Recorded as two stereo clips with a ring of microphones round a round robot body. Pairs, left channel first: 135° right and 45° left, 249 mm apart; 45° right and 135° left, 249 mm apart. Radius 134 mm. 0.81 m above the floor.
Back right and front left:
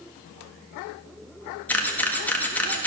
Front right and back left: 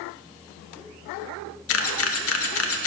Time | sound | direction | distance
1.7 | a camera shutter | 55° right | 1.2 m